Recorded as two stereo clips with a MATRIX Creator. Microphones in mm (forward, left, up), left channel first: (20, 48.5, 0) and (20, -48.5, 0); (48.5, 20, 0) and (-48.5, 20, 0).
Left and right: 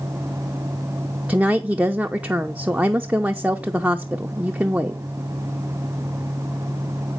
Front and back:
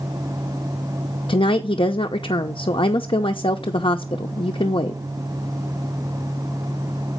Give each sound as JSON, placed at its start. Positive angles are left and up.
{"t": 1.3, "sound": "a woman speaking", "azimuth_deg": -10, "distance_m": 0.7}